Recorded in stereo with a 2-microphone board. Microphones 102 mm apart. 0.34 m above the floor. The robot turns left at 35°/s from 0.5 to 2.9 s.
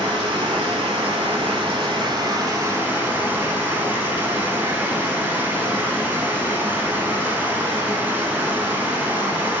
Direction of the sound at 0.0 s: 75° right.